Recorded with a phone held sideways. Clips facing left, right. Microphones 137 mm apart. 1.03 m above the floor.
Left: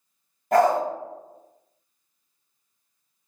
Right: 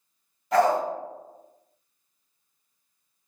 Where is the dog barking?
45° left (ahead or behind), 0.9 m.